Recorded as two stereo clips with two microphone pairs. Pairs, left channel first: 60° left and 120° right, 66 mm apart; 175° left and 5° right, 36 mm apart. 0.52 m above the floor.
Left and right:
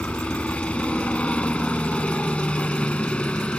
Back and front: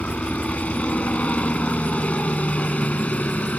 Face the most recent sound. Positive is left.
turn(degrees=130)